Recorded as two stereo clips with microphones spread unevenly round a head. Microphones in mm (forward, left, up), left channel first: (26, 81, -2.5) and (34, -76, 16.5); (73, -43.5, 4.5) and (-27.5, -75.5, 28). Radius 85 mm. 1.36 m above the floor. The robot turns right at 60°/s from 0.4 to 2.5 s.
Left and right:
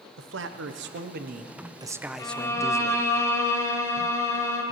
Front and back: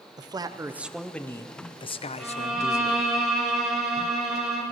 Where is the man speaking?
105° right, 0.7 m; by 3.1 s 20° left, 0.7 m.